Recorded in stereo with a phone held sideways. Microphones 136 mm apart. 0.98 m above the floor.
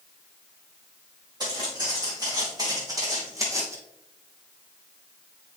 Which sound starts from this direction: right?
Footsteps, at 1.4 s.